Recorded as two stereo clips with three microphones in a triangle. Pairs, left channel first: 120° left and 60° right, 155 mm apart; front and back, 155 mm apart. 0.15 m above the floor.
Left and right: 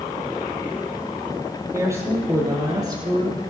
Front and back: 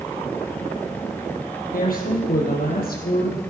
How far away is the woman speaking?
About 4 m.